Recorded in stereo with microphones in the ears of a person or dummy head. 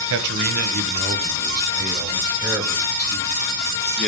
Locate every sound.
0.1 s a man speaking: 65° right (ahead or behind), 1.5 m; by 4.1 s 5° left (ahead or behind), 4 m